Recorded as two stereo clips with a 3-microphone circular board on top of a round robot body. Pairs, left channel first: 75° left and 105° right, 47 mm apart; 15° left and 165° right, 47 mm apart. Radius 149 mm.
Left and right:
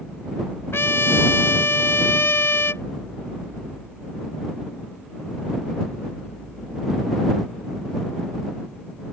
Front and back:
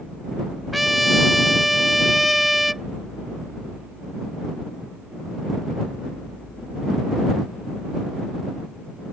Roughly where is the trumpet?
Left.